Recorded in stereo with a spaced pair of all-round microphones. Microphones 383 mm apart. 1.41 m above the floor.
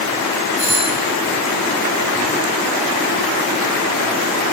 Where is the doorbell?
50° right (ahead or behind), 2 m.